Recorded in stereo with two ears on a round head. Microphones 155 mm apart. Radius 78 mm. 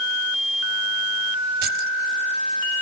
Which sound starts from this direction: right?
Keys jangling, at 1.6 s.